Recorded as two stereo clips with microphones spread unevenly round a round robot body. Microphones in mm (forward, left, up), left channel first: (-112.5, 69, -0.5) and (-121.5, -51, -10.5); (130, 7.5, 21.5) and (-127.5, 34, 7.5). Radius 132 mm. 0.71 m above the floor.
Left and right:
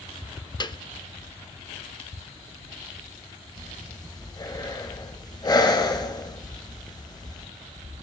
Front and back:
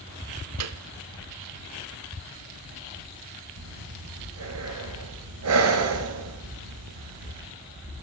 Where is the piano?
145° left, 1.0 m.